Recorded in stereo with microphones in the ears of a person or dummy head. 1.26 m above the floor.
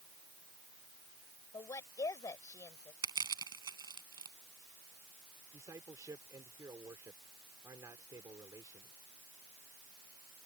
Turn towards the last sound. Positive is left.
turn(degrees=-15)  # may be behind; listen again after turning